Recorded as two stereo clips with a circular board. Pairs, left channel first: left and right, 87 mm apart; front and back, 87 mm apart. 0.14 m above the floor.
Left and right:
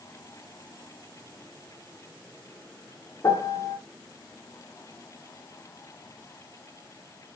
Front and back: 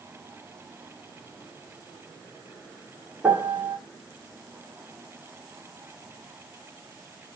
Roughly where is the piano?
Behind left.